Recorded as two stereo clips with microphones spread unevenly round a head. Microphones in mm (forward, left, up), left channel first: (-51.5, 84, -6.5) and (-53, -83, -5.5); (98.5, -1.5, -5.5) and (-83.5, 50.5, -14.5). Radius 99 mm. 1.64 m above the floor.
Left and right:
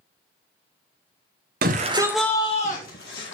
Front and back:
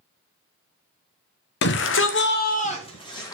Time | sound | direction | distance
1.6 | a shout | 50° right | 0.9 m